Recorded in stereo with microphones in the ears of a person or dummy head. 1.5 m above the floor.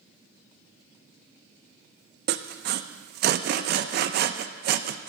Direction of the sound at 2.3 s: 55° right (ahead or behind).